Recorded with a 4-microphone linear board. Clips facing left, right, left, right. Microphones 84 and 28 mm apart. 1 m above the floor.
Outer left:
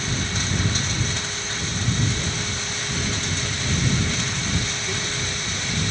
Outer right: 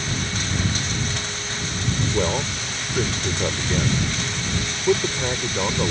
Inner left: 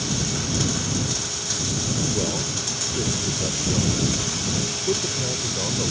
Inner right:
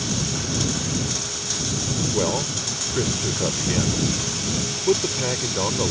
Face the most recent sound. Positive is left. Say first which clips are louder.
# outer right 6 dB, inner right 2 dB
turn(degrees=-70)  # may be behind; listen again after turning